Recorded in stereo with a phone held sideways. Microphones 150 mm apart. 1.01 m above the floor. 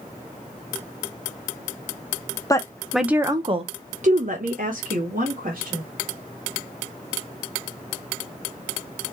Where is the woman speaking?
25° left (ahead or behind), 0.8 m; by 5.8 s 70° right (ahead or behind), 2 m.